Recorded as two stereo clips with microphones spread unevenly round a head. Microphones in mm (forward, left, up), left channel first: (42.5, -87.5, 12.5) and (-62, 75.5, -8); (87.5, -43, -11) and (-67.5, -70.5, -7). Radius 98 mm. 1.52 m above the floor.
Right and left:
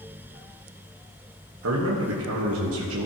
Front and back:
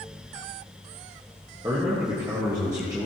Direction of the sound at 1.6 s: 115° left.